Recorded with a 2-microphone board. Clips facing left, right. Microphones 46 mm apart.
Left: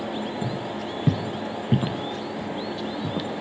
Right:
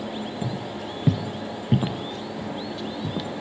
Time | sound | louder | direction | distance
0.4 | footsteps | left 2 dB | 5° right (ahead or behind) | 1.6 m